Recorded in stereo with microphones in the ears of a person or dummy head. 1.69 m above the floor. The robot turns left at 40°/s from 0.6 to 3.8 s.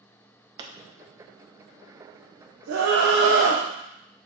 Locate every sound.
0.6 s a pop: 25° right (ahead or behind), 0.5 m; by 0.7 s 30° right (ahead or behind), 0.5 m
2.7 s a scream: 85° right, 0.7 m; by 3.6 s 125° right, 0.7 m